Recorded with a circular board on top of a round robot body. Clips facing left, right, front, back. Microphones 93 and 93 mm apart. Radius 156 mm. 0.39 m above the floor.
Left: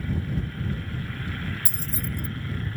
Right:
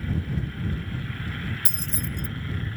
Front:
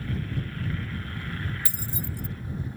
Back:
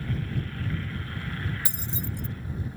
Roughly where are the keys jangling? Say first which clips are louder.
Even, even; right.